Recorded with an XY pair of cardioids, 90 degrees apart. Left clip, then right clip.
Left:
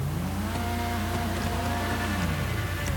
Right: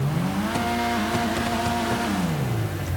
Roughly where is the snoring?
No snoring in this recording.